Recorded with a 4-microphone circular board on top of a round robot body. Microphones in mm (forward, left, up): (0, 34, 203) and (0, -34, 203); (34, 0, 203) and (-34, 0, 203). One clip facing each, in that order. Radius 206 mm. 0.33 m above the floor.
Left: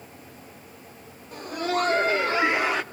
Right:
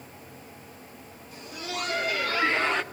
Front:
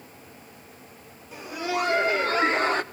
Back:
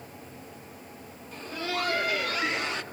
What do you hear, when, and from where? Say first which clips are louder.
1.3 s laughter: left 10 dB, front 4 dB; 80° left, 1.9 m; by 2.8 s 5° left, 1.6 m